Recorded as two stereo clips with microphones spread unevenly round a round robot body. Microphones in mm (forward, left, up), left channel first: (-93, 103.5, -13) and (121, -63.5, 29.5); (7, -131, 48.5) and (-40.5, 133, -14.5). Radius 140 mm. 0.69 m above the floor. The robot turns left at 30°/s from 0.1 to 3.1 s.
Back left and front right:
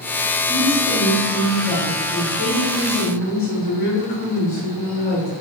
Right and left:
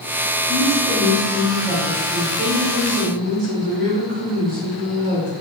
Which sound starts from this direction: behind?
A woman speaking, at 0.5 s.